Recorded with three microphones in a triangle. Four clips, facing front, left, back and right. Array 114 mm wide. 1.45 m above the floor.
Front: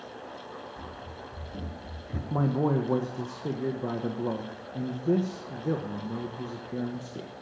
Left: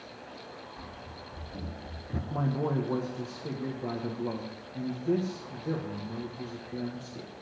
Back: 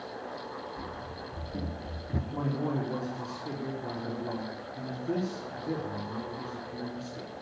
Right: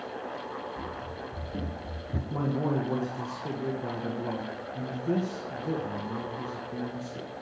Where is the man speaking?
Straight ahead, 1.6 m.